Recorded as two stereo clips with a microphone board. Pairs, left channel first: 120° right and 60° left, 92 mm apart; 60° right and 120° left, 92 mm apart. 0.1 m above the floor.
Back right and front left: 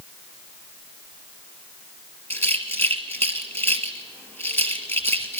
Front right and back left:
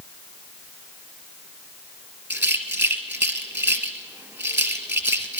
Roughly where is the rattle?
Behind.